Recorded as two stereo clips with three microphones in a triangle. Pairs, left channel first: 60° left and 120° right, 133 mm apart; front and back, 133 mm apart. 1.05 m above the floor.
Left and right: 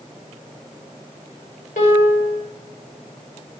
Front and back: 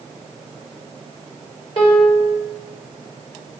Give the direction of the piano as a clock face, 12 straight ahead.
10 o'clock.